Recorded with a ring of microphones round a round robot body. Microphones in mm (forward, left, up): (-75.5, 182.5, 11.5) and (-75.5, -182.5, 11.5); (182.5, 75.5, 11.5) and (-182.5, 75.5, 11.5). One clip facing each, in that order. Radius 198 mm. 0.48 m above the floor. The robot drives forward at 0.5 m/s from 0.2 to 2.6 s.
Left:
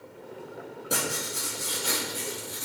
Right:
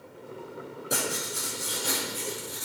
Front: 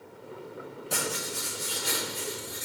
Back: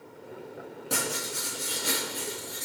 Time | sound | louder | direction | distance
0.9 | writing | even, back 1 dB | straight behind | 3.5 m